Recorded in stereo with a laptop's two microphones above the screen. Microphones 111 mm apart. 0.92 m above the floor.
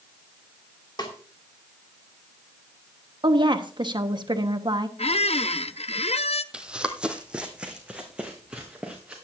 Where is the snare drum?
45° left (ahead or behind), 2 m.